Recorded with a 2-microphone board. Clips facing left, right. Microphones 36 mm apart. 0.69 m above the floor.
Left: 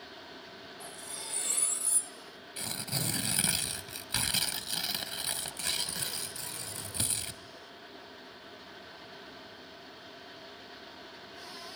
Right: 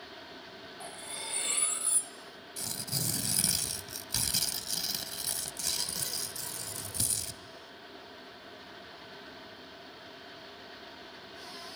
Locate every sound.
0.8 s cutlery clinking: 35° right (ahead or behind), 2.0 m
2.6 s tearing paper: 35° left (ahead or behind), 1.2 m